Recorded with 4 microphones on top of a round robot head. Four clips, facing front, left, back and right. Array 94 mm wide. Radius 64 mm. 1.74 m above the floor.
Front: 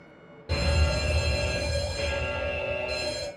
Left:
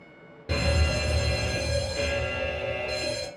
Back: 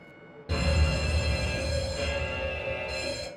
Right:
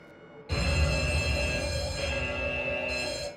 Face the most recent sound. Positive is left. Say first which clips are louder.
# left 3 dB, front 1 dB
turn(degrees=95)